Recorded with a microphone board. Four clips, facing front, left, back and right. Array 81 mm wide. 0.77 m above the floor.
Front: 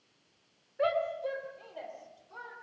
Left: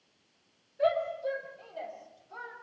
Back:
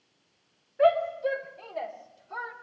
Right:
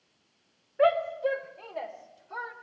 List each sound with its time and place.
0.8 s a shout: 100° right, 2.5 m; by 2.5 s 130° right, 3 m